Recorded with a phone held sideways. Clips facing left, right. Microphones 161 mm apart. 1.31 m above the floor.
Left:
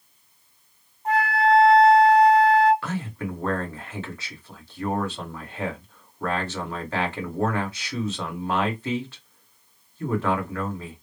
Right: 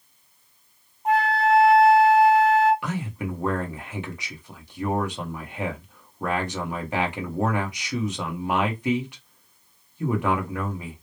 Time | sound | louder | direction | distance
1.1 | a flute | even | 15° right (ahead or behind) | 1.4 m
2.8 | a man speaking | even | 15° right (ahead or behind) | 1.2 m